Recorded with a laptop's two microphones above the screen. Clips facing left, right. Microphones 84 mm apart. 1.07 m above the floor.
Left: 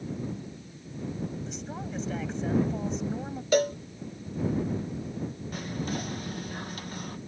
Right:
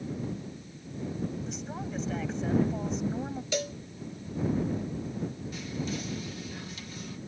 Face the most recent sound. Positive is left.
turn(degrees=50)  # may be behind; listen again after turning